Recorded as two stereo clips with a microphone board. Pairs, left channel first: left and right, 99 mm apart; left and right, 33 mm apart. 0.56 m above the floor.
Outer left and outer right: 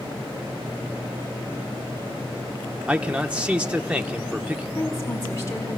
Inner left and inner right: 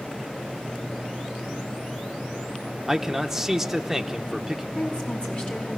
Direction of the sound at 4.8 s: 30° left (ahead or behind).